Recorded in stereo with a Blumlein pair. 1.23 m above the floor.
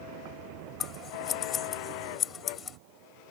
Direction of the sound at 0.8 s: 25° left.